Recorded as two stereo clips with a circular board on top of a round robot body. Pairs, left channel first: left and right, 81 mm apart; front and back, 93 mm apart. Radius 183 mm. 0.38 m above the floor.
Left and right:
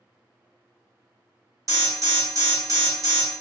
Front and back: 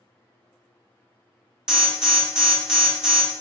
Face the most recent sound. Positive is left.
turn(degrees=-100)